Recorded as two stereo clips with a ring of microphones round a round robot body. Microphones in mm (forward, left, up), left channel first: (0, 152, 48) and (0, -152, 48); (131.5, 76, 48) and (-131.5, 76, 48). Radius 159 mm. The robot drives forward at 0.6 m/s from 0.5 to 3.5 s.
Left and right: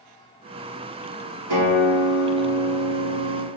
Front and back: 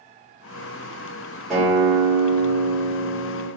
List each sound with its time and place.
1.5 s a guitar: 90° right, 2.0 m; by 3.5 s 125° right, 2.5 m